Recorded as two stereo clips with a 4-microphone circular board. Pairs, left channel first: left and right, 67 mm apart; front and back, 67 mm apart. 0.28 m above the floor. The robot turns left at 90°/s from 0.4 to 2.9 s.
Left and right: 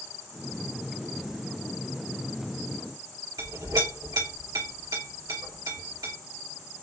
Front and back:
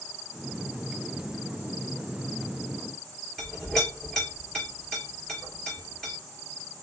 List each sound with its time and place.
3.4 s a clink: 85° right, 2.5 m